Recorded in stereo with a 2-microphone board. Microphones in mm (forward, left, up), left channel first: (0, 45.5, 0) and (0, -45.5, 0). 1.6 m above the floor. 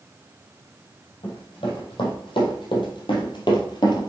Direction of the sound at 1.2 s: 70° left (ahead or behind).